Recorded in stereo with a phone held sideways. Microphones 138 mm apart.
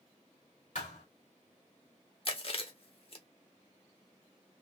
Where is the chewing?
45° left (ahead or behind), 0.9 m.